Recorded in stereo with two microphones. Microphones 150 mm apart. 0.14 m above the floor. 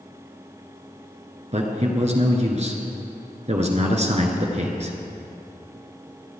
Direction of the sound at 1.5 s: 50° right (ahead or behind).